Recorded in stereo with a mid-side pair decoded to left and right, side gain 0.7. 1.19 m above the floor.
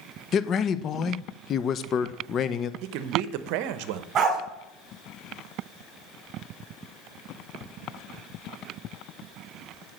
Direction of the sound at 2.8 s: 65° right.